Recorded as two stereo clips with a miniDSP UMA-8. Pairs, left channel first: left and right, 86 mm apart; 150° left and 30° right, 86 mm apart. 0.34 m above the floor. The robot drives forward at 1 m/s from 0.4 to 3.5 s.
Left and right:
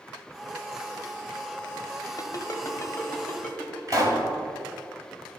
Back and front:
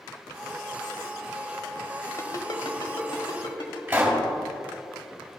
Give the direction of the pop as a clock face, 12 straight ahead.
3 o'clock.